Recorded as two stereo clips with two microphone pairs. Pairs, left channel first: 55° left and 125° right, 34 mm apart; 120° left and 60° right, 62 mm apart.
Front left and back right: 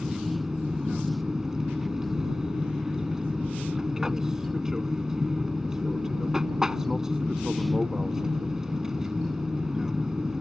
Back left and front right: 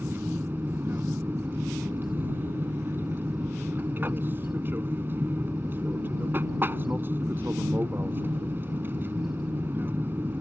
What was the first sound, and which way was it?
An aircraft, 60° right.